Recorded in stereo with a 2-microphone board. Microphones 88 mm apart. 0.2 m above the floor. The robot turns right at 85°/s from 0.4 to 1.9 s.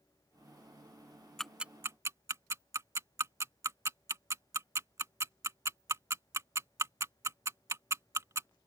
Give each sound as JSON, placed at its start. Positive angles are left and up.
{"t": 1.4, "sound": "ticking", "side_deg": 5}